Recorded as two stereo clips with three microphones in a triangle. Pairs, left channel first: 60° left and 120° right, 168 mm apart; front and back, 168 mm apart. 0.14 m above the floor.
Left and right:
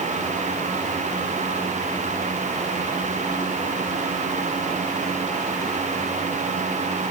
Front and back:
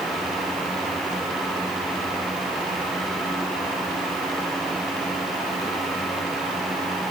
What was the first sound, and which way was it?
Only background noise.